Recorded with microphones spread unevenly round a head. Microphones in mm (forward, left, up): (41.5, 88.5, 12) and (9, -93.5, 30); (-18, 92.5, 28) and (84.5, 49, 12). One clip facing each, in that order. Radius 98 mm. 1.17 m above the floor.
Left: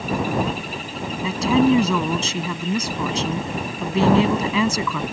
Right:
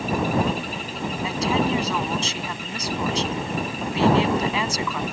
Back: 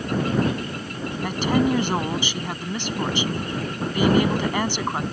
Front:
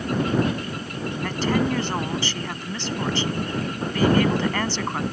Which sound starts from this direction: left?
A woman speaking, at 1.2 s.